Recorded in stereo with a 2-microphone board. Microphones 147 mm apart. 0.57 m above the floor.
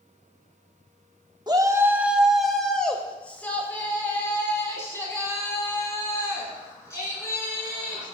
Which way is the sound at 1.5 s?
30° right (ahead or behind).